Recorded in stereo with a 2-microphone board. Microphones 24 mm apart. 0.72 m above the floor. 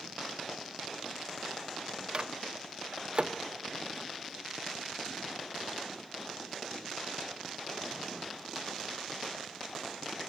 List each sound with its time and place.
2.1 s a microwave: 45° right (ahead or behind), 0.9 m